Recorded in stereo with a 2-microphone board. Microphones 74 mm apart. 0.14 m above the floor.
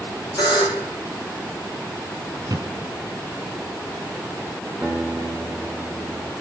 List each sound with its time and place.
0.4 s a buzzer: 75° left (ahead or behind), 5 m
2.5 s a thud: 55° right (ahead or behind), 1.8 m
4.8 s a guitar: 20° right (ahead or behind), 8.5 m